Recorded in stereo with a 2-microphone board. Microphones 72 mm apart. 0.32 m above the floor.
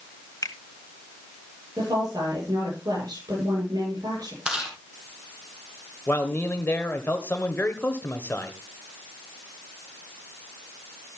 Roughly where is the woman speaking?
Right.